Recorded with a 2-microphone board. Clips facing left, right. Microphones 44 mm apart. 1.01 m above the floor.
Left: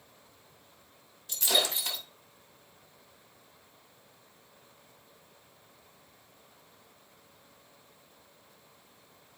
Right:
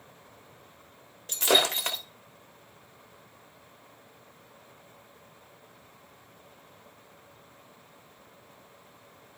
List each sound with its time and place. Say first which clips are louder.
1.3 s breaking glass: right 5 dB; 60° right (ahead or behind), 1.2 m